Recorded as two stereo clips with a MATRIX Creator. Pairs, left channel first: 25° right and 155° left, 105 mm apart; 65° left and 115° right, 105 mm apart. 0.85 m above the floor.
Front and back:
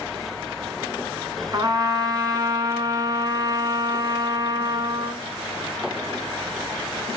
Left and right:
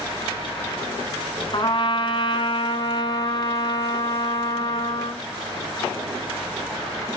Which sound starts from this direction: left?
A trumpet, at 1.5 s.